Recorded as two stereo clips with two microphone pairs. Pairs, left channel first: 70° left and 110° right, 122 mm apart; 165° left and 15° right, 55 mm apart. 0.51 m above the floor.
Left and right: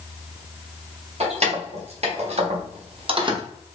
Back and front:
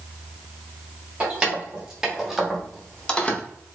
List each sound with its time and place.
1.2 s keys jangling: 85° right, 1.4 m; by 3.4 s 145° right, 0.7 m